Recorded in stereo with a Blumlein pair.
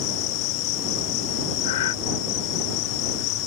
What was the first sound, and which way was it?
An insect, 40° left.